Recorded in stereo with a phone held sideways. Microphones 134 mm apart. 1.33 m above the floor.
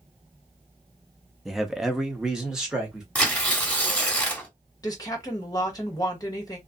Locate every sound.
1.4 s a man speaking: centre (ahead or behind), 0.5 m; by 3.0 s 5° right (ahead or behind), 1.4 m
3.1 s tearing paper: 10° left (ahead or behind), 1.0 m
4.8 s a woman speaking: 30° left (ahead or behind), 1.2 m